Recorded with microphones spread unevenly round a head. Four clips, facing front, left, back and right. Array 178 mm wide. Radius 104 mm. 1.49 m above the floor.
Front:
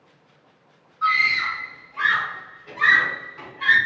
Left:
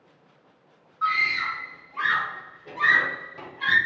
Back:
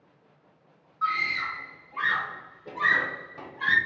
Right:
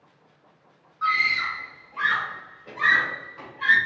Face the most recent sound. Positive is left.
turn(degrees=145)